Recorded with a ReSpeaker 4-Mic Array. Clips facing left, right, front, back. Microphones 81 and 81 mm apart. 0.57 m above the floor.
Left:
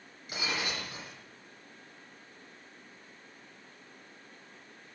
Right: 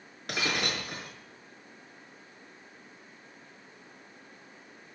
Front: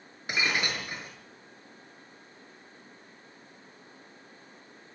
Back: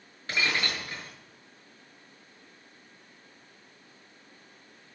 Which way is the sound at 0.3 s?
75° right.